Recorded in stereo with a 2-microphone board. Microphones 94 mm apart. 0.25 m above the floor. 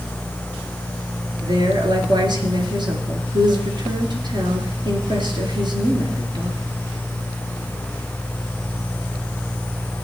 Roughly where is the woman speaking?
Right.